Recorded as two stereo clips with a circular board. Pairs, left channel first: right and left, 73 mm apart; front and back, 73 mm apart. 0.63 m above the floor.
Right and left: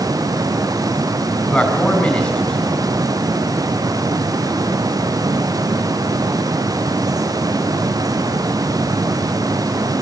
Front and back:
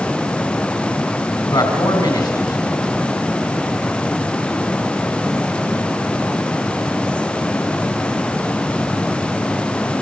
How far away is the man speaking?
About 4 m.